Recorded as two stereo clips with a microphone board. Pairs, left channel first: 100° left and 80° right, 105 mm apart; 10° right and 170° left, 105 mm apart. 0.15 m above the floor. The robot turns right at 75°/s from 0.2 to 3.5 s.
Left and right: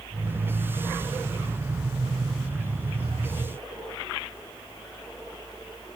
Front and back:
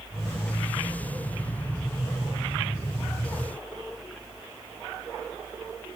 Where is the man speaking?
No man speaking in this recording.